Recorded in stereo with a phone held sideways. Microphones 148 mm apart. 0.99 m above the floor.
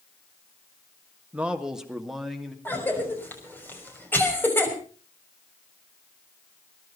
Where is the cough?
15° left (ahead or behind), 5.5 m.